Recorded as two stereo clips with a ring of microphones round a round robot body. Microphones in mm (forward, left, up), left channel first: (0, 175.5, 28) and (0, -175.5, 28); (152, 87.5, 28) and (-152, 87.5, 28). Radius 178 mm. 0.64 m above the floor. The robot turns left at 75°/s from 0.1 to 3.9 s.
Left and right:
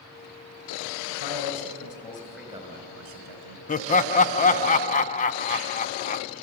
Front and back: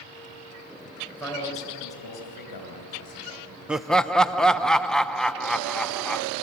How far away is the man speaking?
About 4.5 m.